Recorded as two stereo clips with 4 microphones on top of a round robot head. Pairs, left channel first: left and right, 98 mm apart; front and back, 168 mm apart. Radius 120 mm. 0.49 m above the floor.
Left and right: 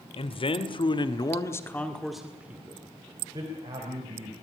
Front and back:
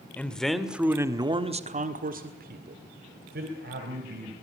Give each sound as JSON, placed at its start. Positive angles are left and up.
{"t": 0.2, "sound": "a man speaking", "azimuth_deg": 80, "distance_m": 2.0}